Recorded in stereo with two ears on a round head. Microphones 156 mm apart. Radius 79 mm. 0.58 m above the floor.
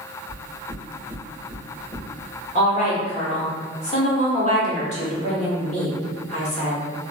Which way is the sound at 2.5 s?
40° left (ahead or behind).